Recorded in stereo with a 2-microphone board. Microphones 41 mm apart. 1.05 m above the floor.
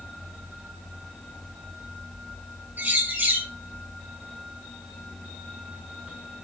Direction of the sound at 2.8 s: 50° right (ahead or behind).